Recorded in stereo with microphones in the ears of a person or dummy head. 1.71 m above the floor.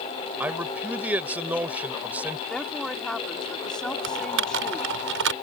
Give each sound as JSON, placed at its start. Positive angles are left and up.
{"t": 0.4, "sound": "a man speaking", "side_deg": -10}
{"t": 2.5, "sound": "a woman speaking", "side_deg": 0}
{"t": 4.0, "sound": "typing on a keyboard", "side_deg": -65}